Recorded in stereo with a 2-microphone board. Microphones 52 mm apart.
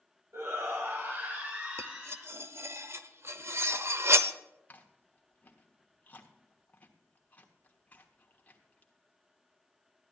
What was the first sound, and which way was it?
A shout, 60° right (ahead or behind).